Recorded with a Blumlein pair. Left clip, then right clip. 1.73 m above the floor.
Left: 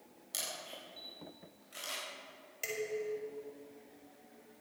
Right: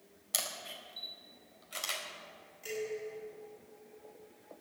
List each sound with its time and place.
0.3 s a camera shutter: 65° right, 4 m
2.6 s dishes clattering: 40° left, 6.5 m